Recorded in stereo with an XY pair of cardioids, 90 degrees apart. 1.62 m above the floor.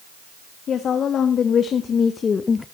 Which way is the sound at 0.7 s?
65° left.